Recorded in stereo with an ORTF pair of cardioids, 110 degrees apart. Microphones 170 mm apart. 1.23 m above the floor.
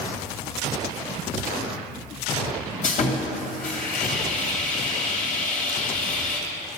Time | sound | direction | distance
2.8 | sawing | 45° left | 2.5 m